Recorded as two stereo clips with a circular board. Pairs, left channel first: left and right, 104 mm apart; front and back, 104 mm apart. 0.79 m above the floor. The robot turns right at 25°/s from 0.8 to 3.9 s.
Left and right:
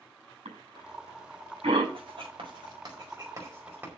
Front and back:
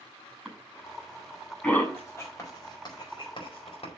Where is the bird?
I don't hear a bird.